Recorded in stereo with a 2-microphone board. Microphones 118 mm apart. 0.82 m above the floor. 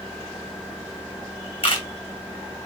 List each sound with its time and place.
1.6 s a camera shutter: 45° left (ahead or behind), 2 m